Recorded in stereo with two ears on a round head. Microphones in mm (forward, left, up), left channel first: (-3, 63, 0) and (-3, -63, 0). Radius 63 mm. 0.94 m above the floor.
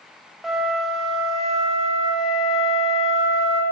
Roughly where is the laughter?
I don't hear laughter.